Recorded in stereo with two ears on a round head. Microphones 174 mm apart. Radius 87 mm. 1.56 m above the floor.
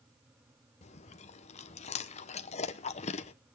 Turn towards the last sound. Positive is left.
turn(degrees=35)  # may be behind; listen again after turning